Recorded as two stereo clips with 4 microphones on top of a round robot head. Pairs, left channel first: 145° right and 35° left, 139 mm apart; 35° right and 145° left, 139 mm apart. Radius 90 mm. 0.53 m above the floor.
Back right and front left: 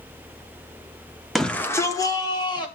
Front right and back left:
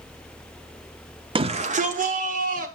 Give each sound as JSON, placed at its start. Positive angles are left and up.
{"t": 1.4, "sound": "a shout", "azimuth_deg": 125, "distance_m": 0.8}